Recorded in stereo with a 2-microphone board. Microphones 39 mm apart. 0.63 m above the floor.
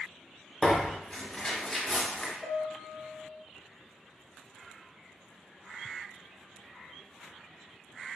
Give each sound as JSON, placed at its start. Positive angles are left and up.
{"t": 0.6, "sound": "tearing paper", "side_deg": 15, "distance_m": 0.9}
{"t": 2.4, "sound": "a piano", "side_deg": -55, "distance_m": 1.4}